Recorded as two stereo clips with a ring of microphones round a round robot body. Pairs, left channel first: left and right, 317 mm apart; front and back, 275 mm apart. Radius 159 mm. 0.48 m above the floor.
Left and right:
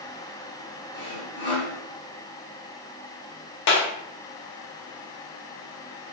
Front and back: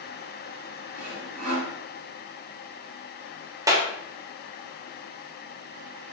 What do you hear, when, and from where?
0.9 s sawing: 145° left, 3 m
3.7 s a clap: 105° left, 1.8 m